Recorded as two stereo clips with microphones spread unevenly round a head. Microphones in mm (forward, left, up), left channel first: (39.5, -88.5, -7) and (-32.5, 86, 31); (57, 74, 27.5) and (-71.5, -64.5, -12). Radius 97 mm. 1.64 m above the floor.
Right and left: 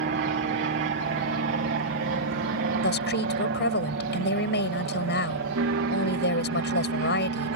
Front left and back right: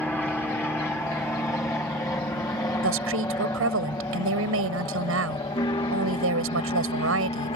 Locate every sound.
0.0 s an aircraft: 135° left; by 7.6 s 110° left
2.8 s a woman speaking: 105° right